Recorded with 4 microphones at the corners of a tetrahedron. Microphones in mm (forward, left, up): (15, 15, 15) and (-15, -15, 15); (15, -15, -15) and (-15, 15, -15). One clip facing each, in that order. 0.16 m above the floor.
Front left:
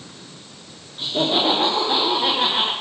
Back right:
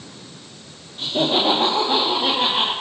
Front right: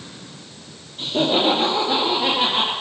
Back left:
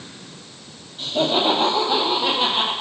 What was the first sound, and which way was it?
Laughter, 30° right.